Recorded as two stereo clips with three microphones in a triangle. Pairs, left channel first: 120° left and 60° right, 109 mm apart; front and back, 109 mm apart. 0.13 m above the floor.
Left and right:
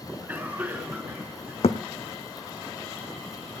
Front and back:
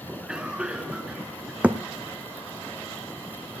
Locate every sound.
0.1 s a cough: 110° right, 1.5 m
1.6 s a thud: 105° left, 0.8 m